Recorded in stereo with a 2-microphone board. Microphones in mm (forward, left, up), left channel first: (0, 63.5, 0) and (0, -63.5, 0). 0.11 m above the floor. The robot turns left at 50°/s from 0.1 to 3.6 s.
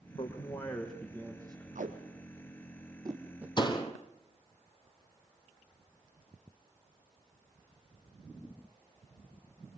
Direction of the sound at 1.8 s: 75° right (ahead or behind).